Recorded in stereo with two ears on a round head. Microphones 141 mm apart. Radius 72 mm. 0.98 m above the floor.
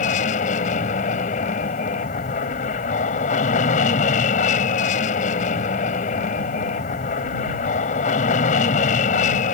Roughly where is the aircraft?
Left.